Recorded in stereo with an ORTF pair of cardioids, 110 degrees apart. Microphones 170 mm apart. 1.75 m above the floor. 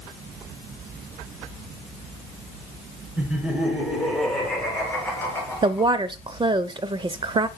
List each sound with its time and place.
3.2 s laughter: 10° right, 5 m; by 6.0 s 20° left, 5.5 m
5.6 s a woman speaking: 30° right, 0.9 m